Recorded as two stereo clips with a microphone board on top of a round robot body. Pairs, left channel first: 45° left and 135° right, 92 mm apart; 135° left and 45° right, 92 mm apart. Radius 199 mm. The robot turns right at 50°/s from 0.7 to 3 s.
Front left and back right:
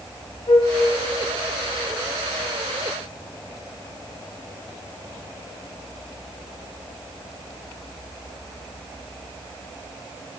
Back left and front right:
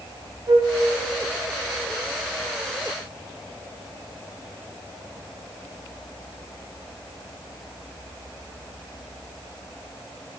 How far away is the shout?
I don't hear a shout.